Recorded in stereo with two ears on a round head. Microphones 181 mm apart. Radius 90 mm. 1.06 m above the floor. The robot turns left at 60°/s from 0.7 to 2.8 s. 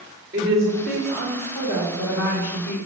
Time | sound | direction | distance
0.3 | a woman speaking | 165° right | 2 m